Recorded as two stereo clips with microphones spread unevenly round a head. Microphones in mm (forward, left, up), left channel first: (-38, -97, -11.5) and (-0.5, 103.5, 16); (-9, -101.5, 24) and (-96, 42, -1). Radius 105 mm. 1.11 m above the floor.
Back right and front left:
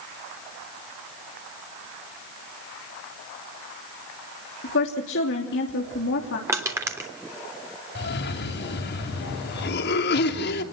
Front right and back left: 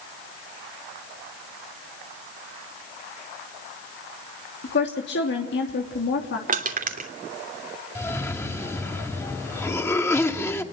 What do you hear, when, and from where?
4.6 s a woman speaking: 70° right, 2.5 m
6.5 s crushing: 155° left, 3 m
8.0 s a cough: 135° right, 3 m